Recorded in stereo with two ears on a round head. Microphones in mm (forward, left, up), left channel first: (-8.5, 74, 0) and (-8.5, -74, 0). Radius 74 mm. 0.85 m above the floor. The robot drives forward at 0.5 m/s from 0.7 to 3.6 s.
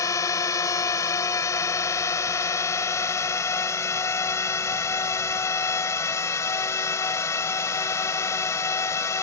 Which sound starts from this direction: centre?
A drone, at 0.0 s.